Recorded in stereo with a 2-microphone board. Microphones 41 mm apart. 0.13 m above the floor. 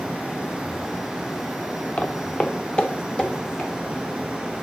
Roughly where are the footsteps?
Left.